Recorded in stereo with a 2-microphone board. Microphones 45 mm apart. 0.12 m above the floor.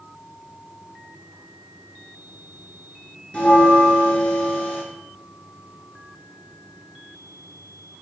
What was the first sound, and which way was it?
A bell, 20° left (ahead or behind).